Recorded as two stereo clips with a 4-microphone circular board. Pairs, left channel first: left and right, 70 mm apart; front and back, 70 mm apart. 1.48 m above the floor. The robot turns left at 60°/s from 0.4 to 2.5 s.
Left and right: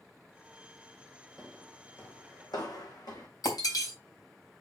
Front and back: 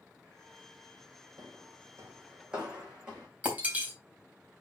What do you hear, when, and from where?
1.4 s footsteps: 175° left, 3 m; by 3.3 s 105° left, 5.5 m
3.4 s breaking glass: 115° left, 3.5 m